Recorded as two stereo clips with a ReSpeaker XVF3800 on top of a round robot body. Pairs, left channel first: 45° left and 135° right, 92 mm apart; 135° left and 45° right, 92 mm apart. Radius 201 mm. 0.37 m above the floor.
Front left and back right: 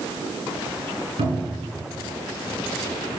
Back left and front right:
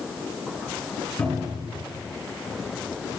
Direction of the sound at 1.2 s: 150° right.